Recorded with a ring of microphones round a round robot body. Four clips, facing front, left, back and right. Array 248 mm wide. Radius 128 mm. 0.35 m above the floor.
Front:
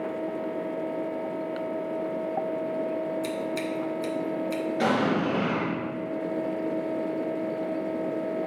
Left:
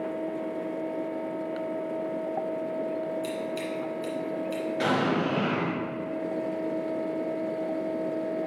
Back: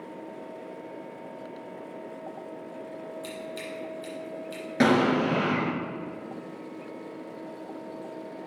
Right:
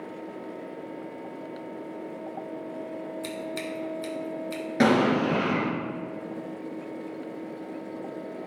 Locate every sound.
3.2 s scissors: 40° right, 1.8 m
4.8 s an explosion: 135° right, 3.5 m